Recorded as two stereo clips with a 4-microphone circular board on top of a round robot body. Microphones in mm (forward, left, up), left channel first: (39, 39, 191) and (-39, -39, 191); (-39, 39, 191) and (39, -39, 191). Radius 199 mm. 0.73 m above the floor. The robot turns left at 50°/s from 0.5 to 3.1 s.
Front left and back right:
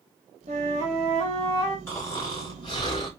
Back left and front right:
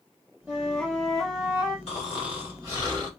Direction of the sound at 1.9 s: 115° left.